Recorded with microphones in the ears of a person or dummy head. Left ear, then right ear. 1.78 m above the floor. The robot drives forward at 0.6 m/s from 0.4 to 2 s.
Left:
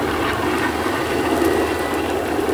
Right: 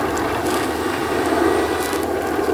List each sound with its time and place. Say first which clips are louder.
0.0 s a helicopter: even; 75° right (ahead or behind)